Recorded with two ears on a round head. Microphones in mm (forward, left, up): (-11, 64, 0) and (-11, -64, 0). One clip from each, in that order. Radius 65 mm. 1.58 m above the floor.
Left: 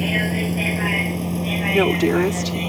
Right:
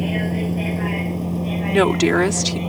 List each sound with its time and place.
0.0 s a vehicle: 40° left (ahead or behind); by 2.7 s 45° left (ahead or behind)
1.7 s a woman speaking: 50° right (ahead or behind)